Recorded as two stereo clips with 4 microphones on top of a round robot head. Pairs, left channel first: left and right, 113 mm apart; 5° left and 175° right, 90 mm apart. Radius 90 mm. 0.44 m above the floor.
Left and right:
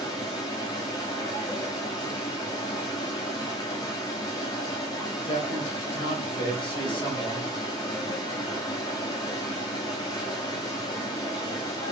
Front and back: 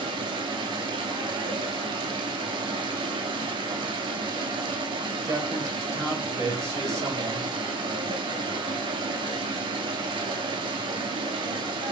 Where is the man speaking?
130° left, 2 m.